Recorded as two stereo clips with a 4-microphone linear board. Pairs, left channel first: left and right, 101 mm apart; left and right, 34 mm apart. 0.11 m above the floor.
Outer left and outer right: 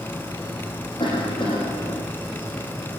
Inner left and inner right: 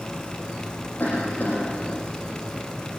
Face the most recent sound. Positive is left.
turn(degrees=55)  # may be behind; listen again after turning